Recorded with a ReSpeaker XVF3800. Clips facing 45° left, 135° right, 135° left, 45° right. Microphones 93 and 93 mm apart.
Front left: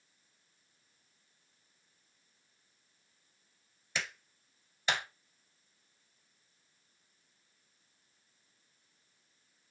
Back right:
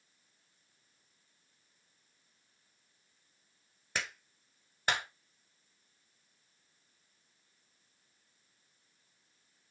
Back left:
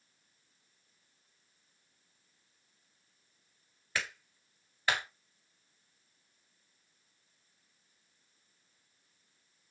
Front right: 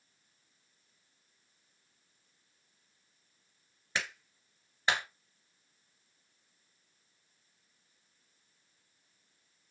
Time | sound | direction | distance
4.0 | a clap | 110° right | 1.6 m